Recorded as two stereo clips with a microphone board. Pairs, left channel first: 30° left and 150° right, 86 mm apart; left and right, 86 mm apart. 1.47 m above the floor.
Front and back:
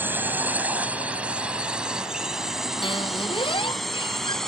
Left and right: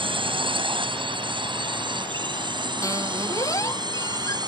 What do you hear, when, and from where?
0.0 s a drone: 85° right; by 4.5 s 55° right
2.8 s a squeak: 40° left